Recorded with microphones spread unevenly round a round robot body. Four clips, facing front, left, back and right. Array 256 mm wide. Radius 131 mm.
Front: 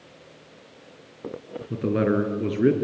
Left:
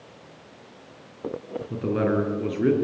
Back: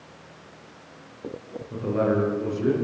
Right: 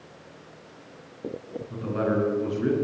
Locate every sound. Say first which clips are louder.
1.7 s a man speaking: left 2 dB, front 1 dB; 10° left, 6 m; by 2.7 s straight ahead, 6 m